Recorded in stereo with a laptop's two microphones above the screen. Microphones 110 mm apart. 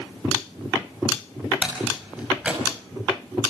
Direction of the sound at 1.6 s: 10° right (ahead or behind).